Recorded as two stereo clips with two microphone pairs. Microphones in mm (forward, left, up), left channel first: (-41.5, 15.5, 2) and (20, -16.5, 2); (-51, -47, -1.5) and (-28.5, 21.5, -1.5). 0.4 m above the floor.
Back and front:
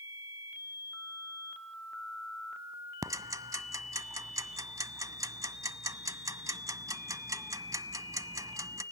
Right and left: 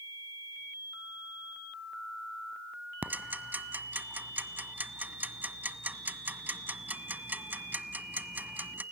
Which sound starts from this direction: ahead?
Ticking, at 3.0 s.